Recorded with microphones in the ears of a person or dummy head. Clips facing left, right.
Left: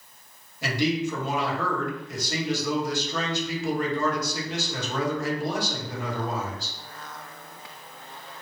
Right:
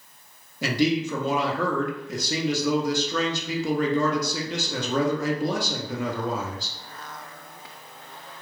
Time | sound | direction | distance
0.6 | a man speaking | 60° right (ahead or behind) | 0.8 m